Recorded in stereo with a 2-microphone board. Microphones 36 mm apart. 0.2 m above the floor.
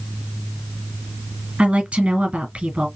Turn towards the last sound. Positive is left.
turn(degrees=-35)  # may be behind; listen again after turning